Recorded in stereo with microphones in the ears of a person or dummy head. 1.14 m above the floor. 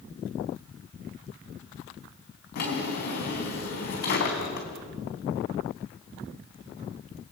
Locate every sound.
2.5 s a drawer: 55° left (ahead or behind), 4 m